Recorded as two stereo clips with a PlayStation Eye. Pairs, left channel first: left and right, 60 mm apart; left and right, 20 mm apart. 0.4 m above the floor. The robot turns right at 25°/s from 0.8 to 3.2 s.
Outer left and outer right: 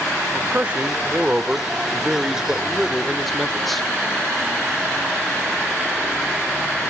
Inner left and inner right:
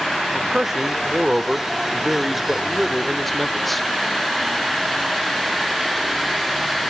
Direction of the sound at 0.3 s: 55° right.